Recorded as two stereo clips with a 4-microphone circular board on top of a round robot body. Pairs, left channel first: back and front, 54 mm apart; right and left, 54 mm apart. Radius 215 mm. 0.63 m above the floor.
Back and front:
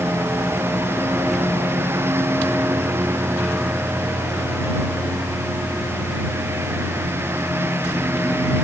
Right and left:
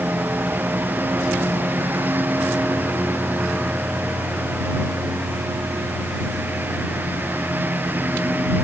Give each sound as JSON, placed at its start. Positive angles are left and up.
{"t": 0.0, "sound": "a lawn mower", "azimuth_deg": 40}